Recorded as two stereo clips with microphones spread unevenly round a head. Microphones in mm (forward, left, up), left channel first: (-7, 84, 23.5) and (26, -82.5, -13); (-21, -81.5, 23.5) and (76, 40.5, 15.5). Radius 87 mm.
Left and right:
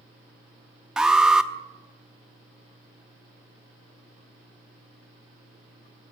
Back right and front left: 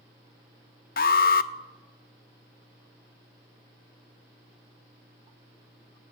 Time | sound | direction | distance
1.0 | an alarm | 170° right | 0.6 m